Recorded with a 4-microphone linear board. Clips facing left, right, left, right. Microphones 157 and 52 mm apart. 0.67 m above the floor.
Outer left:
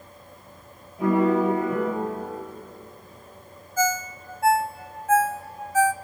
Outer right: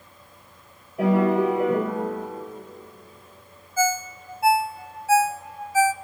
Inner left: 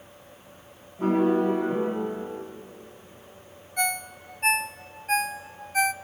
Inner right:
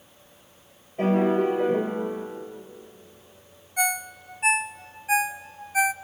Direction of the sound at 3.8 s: 10° right (ahead or behind).